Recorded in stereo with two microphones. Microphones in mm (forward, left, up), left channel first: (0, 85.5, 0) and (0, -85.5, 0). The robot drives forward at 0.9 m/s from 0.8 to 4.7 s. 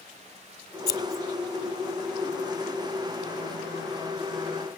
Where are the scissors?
70° left (ahead or behind), 0.8 m; by 1.2 s 50° left (ahead or behind), 1.0 m.